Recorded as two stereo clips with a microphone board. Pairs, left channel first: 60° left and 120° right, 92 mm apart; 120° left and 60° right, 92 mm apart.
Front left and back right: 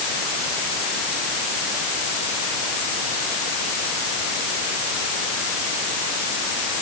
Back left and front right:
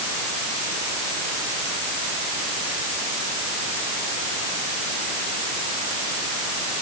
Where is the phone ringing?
I don't hear a phone ringing.